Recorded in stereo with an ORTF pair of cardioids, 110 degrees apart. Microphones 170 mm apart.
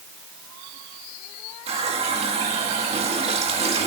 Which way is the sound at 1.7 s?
40° right.